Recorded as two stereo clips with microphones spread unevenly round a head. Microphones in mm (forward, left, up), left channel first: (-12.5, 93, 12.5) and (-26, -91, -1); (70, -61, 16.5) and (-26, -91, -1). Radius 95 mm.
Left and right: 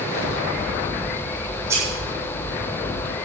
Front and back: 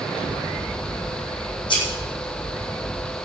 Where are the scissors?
15° right, 8.5 m.